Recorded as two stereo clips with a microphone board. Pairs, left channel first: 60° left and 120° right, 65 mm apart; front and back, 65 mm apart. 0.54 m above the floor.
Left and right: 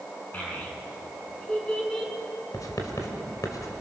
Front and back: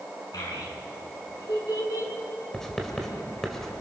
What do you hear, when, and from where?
0.3 s a child speaking: 5° right, 5 m; by 2.1 s 20° right, 5 m
2.5 s writing: 85° left, 3 m